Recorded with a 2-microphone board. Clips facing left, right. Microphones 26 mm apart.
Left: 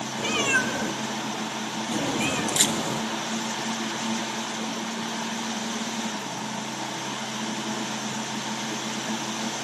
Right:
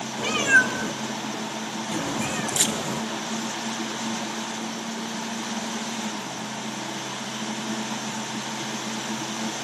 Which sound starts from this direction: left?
A camera shutter, at 2.6 s.